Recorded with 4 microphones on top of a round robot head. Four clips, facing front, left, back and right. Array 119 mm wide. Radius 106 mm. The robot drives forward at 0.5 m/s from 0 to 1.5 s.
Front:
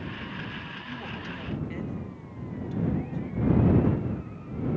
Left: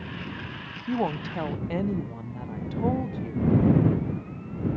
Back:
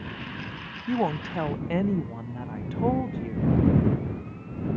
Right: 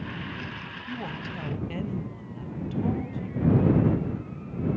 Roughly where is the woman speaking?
Behind left.